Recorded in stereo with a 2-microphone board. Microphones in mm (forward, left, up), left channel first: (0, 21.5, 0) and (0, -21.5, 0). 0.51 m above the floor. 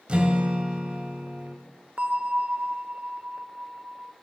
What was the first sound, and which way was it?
A guitar, 25° right (ahead or behind).